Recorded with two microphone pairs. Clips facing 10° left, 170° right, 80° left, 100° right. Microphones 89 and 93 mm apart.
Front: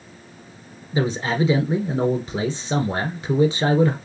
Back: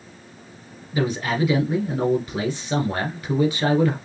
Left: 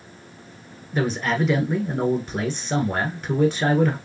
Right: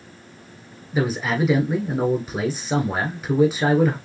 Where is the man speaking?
25° right, 1.4 m.